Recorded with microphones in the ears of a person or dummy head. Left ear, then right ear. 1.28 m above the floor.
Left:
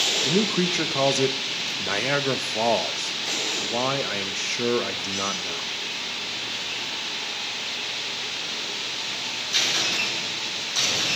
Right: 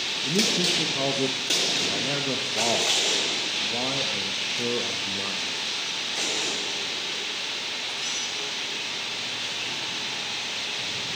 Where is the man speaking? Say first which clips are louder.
Even; 55° left (ahead or behind), 1.1 m.